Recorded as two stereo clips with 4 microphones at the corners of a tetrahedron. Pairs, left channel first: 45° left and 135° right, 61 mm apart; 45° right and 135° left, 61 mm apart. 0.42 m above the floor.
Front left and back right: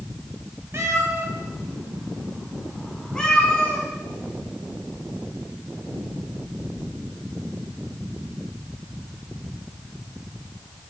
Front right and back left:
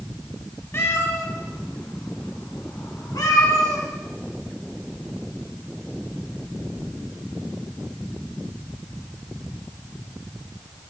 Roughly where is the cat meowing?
Right.